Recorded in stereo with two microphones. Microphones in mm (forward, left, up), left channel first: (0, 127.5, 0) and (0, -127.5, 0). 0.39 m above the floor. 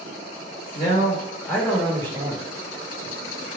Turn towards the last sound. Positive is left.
turn(degrees=-30)  # may be behind; listen again after turning